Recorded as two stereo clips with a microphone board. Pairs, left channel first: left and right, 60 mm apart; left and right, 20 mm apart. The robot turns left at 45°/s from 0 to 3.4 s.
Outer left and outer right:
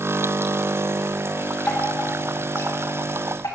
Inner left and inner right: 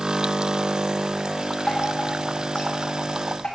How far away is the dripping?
About 3.5 m.